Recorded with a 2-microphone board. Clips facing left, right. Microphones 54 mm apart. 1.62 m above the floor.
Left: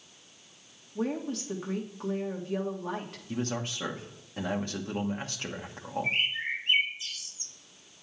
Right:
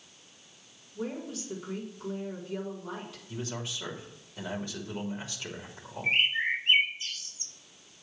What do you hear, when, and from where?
0.9 s a woman speaking: 50° left (ahead or behind), 1.7 m
3.3 s a man speaking: 50° left (ahead or behind), 1.2 m
6.0 s a bird: 35° right (ahead or behind), 1.1 m